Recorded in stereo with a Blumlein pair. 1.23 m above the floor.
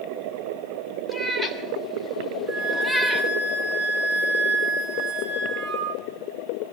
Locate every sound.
1.1 s a cat meowing: straight ahead, 2 m; by 3.3 s 5° left, 0.9 m
2.5 s a flute: 15° right, 6 m